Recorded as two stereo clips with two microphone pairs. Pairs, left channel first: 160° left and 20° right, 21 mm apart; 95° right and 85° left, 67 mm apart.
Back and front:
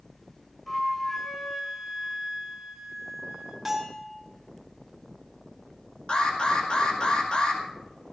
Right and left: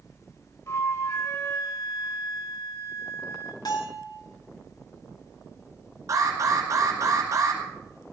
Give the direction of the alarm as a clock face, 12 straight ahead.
8 o'clock.